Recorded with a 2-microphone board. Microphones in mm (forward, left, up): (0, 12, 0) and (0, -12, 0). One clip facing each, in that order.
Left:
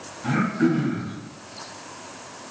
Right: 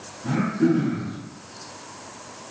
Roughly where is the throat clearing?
Left.